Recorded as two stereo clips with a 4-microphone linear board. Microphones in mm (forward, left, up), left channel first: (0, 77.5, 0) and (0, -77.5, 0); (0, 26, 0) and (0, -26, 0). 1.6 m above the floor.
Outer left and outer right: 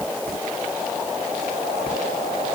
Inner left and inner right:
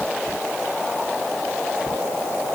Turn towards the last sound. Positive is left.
No sound to turn to.